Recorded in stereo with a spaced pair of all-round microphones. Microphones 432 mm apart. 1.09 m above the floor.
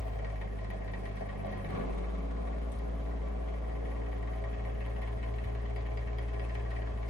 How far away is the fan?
About 0.9 m.